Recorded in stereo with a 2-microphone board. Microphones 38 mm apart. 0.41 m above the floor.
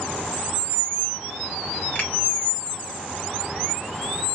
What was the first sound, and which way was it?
A finger snap, 50° left (ahead or behind).